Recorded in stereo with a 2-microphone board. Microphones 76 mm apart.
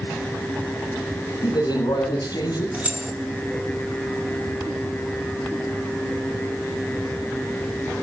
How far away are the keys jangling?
About 4.5 m.